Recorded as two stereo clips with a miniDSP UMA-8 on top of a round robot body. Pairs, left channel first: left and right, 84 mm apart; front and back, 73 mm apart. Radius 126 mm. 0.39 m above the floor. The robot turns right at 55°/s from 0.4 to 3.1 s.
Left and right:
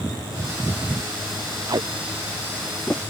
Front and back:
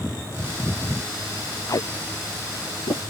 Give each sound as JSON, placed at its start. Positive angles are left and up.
{"t": 1.7, "sound": "tape being pulled", "azimuth_deg": -50}